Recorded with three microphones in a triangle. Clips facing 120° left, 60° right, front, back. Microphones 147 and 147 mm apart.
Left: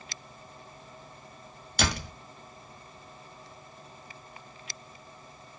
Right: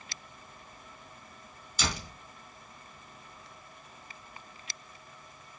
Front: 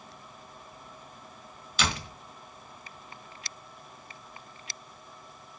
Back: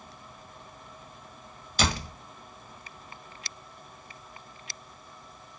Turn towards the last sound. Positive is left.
turn(degrees=135)